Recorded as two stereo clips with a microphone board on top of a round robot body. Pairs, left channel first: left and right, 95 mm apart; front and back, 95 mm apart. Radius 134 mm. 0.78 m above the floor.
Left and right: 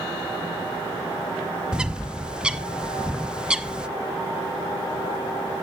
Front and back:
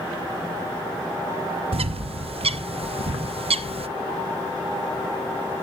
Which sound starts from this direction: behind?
A bird, at 1.7 s.